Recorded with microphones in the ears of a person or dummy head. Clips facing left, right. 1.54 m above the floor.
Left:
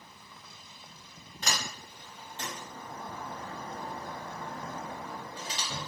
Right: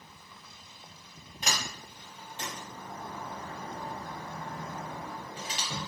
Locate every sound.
1.4 s a sliding door: 15° right (ahead or behind), 0.9 m